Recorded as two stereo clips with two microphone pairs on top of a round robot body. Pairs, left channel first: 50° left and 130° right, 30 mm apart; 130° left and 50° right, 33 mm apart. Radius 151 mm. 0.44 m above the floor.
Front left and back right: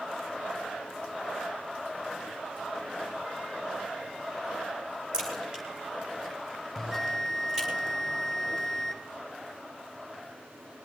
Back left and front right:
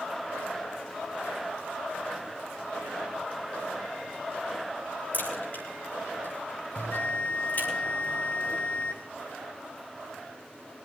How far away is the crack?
About 8.5 m.